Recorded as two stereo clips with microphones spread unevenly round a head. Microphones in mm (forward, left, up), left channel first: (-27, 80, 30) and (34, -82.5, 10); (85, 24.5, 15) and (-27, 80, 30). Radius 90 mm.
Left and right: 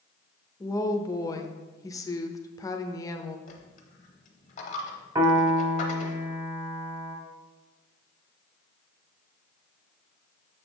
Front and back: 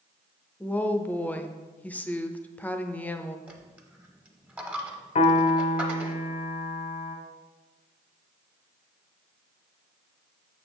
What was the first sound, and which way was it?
A woman speaking, 40° left.